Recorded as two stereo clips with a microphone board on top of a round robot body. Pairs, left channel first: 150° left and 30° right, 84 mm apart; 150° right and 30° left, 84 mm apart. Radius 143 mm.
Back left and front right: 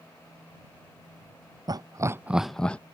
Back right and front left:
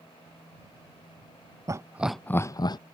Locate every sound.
1.7 s laughter: 10° right; by 2.8 s 135° right